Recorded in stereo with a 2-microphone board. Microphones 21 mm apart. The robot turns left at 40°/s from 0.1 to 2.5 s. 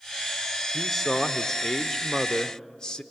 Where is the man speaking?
175° left, 0.9 m; by 3.0 s 100° left, 0.9 m.